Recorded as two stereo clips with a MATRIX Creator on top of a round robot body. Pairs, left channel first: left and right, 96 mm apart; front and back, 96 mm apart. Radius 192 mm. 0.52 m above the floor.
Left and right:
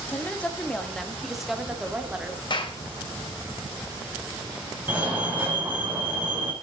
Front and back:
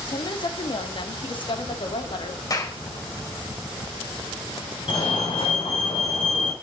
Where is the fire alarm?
20° right, 5 m.